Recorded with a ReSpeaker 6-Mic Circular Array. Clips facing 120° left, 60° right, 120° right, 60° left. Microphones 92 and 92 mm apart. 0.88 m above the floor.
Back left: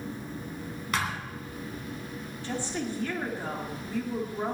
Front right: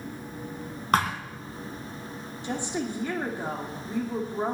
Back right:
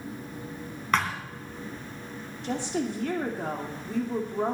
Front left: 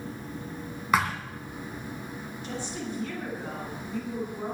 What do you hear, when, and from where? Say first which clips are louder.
0.9 s a thud: front right 7 dB, front left 1 dB; 20° right, 2.5 m
2.4 s a woman speaking: front right 2 dB, back right 7 dB; 130° right, 2 m